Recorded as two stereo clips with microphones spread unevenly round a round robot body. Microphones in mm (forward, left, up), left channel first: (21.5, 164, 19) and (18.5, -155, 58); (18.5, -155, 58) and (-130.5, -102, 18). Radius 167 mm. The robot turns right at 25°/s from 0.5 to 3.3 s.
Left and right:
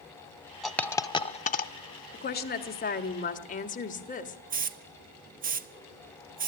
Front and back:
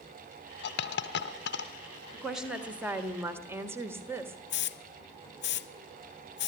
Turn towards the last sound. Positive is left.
turn(degrees=-25)